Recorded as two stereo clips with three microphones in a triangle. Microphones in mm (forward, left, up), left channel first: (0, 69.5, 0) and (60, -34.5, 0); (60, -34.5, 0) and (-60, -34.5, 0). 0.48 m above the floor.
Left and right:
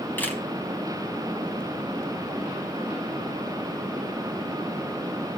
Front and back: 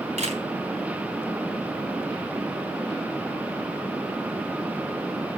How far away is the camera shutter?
About 4 m.